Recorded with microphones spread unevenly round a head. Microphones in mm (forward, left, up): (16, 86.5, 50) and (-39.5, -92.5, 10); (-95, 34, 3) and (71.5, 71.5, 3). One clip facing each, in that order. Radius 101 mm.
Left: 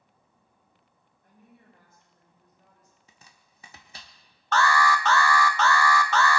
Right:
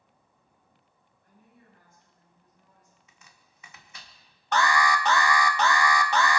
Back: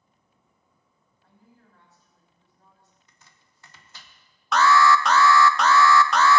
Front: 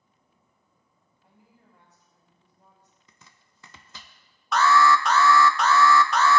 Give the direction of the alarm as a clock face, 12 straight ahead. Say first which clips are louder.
Left 1 dB, back 1 dB; 6 o'clock.